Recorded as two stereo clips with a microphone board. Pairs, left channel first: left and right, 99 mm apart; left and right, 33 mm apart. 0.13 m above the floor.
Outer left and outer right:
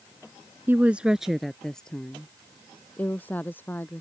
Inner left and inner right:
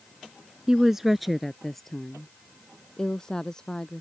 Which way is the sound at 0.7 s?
20° right (ahead or behind).